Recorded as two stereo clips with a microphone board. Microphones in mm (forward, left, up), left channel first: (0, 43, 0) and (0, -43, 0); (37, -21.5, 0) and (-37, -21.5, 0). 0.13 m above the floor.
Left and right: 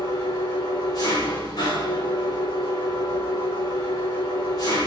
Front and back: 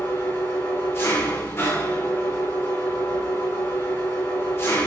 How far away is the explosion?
No explosion in this recording.